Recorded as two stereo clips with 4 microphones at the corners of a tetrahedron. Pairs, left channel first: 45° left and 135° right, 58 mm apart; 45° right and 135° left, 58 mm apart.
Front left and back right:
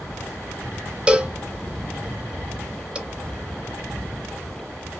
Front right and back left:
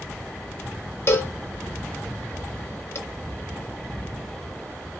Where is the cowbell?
70° right, 0.5 m.